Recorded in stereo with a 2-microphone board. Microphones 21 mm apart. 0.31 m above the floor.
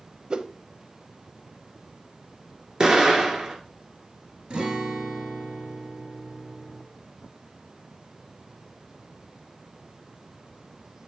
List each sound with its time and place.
0.3 s a whoosh: 50° right (ahead or behind), 0.6 m
2.8 s an explosion: 40° right (ahead or behind), 1.5 m
4.5 s a guitar: 60° right (ahead or behind), 1.7 m